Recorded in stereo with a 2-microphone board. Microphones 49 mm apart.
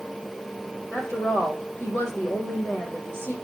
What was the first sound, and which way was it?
A woman speaking, 55° left (ahead or behind).